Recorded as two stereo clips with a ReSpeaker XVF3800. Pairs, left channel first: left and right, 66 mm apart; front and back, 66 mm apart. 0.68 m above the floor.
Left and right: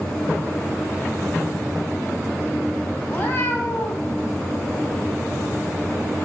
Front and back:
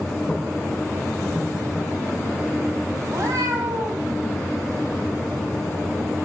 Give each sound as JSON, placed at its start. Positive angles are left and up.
{"t": 3.1, "sound": "a cat meowing", "azimuth_deg": 140, "distance_m": 1.8}